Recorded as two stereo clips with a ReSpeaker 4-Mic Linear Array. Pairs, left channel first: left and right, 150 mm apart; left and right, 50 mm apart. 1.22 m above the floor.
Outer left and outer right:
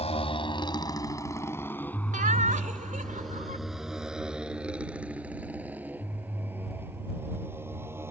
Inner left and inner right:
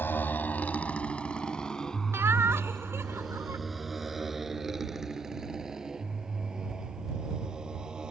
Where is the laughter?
65° right (ahead or behind).